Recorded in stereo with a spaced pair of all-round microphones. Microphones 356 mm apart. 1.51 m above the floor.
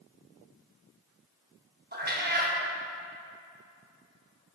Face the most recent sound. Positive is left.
turn(degrees=-25)  # may be behind; listen again after turning